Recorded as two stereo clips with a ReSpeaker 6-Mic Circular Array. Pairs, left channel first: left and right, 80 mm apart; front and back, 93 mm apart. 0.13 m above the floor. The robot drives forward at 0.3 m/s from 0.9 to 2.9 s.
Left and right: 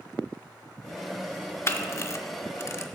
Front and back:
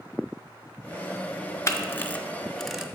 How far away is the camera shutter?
About 0.6 m.